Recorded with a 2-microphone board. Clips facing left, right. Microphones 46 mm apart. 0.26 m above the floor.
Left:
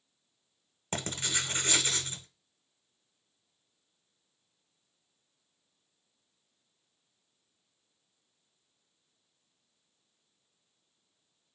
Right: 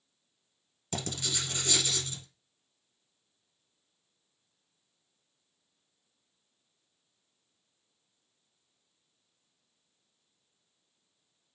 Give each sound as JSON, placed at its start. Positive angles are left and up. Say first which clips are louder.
{"t": 0.9, "sound": "writing", "louder": "left 2 dB", "side_deg": 40, "distance_m": 0.8}